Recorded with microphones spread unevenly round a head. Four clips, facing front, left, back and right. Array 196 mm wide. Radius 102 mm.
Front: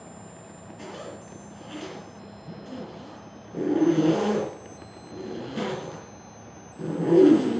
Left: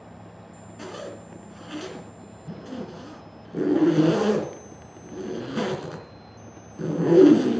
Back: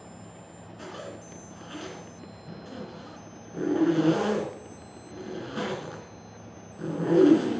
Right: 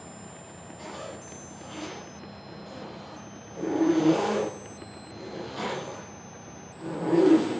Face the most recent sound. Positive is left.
turn(degrees=95)